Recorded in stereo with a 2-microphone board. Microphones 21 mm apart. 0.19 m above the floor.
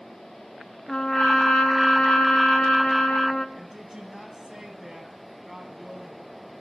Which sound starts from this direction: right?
A woman speaking, at 3.5 s.